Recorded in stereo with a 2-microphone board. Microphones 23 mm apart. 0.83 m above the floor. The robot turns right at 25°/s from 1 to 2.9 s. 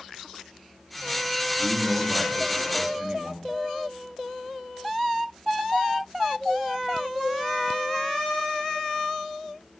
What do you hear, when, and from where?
1.6 s a man speaking: 110° right, 1.9 m; by 3.5 s 80° right, 1.9 m